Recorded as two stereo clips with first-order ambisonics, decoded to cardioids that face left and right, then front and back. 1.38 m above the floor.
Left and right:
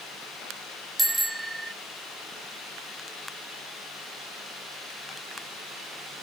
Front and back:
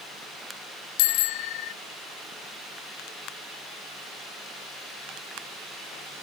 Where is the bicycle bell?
5° right.